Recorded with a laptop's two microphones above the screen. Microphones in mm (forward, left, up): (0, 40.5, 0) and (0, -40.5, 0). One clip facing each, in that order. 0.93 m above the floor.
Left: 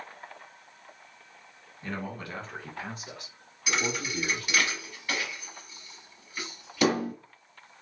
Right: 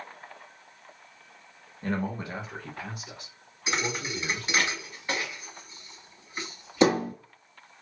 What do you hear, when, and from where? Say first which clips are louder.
1.8 s a man speaking: right 5 dB; 45° right (ahead or behind), 0.9 m; by 4.7 s 75° left (ahead or behind), 1.9 m
3.7 s a thud: even; 25° right (ahead or behind), 0.9 m